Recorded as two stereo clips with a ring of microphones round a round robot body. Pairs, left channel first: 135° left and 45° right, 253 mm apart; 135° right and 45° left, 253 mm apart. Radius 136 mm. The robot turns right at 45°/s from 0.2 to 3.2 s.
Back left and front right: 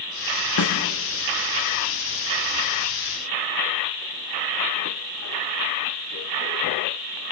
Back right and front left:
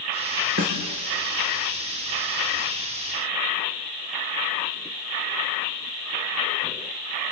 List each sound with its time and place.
0.6 s a snare drum: 100° left, 5 m; by 0.8 s 110° left, 5 m